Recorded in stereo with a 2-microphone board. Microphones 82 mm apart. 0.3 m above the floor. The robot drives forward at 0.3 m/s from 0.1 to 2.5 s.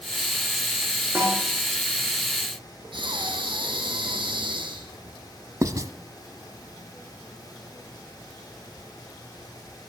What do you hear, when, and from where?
1.1 s a snare drum: 30° right (ahead or behind), 8.5 m
2.9 s breathing: 75° right (ahead or behind), 2.5 m
5.6 s writing: 45° right (ahead or behind), 0.7 m